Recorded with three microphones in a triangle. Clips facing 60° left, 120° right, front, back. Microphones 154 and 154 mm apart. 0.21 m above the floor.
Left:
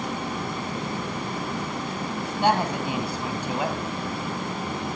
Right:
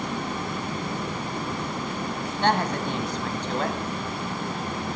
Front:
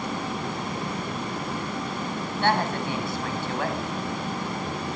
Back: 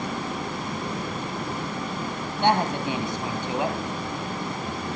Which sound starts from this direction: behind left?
A woman speaking, at 2.4 s.